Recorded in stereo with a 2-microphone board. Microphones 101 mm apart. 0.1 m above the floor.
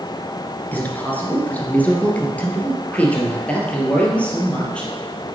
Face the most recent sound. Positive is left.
turn(degrees=10)  # may be behind; listen again after turning